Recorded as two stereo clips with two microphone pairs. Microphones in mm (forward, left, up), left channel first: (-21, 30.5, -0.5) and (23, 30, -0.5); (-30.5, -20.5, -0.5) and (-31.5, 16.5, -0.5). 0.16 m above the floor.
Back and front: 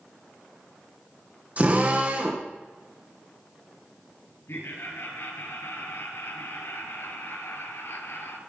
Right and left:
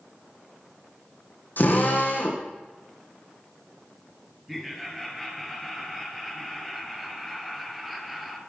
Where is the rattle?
No rattle in this recording.